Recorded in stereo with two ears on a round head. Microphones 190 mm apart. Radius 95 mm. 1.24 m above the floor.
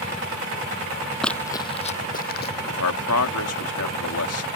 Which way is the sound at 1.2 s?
5° left (ahead or behind).